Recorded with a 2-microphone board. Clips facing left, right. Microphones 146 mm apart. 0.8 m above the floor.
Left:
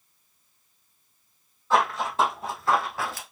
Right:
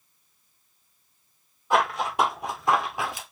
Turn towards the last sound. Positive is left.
turn(degrees=-15)  # may be behind; listen again after turning